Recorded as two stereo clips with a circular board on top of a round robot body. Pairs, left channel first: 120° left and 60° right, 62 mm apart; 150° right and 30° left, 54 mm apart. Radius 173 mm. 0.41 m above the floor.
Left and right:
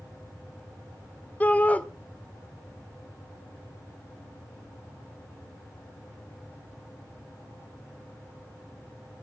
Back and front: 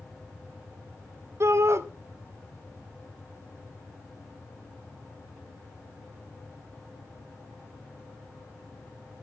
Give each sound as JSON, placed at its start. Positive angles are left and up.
{"t": 1.4, "sound": "a shout", "azimuth_deg": 55, "distance_m": 1.6}